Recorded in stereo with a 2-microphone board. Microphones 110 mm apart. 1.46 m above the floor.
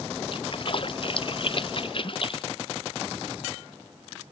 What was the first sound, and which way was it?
A splash, 45° left (ahead or behind).